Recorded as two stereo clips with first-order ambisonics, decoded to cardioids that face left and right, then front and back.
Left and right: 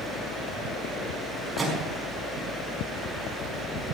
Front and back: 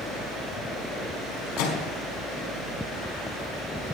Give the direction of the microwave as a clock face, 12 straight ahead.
12 o'clock.